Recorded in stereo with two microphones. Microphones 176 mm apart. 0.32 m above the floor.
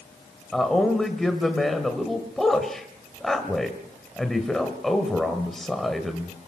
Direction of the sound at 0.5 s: Centre (ahead or behind).